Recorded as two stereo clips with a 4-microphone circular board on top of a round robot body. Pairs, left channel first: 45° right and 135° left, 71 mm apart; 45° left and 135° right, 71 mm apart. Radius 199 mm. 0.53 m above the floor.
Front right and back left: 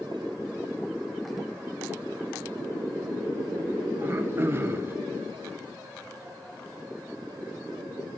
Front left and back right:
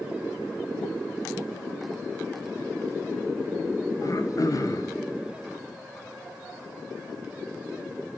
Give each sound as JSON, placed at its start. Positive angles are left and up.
{"t": 4.0, "sound": "throat clearing", "azimuth_deg": 80, "distance_m": 0.9}